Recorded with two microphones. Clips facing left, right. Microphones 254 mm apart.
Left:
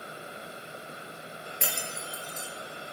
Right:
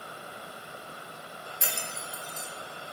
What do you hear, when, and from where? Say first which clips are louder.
1.6 s breaking glass: left 2 dB; 70° left (ahead or behind), 4 m